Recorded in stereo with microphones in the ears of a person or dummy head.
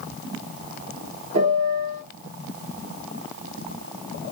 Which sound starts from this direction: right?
A piano, at 1.3 s.